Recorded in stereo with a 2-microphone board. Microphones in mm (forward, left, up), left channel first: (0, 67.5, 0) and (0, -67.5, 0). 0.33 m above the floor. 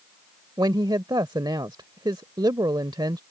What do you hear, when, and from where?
0.6 s a woman speaking: 35° right (ahead or behind)